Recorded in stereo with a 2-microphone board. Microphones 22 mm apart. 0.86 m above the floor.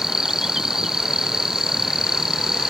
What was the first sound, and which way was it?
An insect, 25° right (ahead or behind).